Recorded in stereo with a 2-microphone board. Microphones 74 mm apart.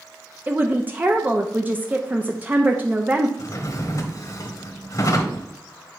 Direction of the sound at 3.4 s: 45° left (ahead or behind).